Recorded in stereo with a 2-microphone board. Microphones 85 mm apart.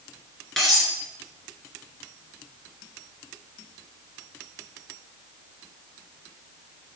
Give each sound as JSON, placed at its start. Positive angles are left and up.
{"t": 0.6, "sound": "cutlery clinking", "side_deg": 5, "distance_m": 2.0}